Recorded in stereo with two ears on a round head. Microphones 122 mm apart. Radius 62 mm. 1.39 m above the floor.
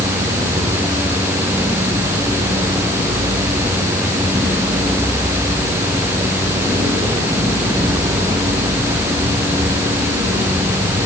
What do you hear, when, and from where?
Only background noise.